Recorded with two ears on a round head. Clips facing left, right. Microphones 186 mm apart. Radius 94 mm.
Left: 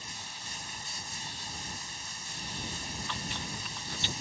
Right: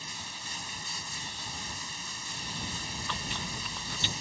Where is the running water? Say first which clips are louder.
Right 2 dB; 60° right (ahead or behind).